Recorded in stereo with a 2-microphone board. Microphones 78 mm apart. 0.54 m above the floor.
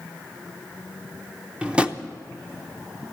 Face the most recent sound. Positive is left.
turn(degrees=-15)  # may be behind; listen again after turning